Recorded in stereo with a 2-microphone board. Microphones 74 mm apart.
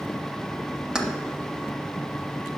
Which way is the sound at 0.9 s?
10° right (ahead or behind).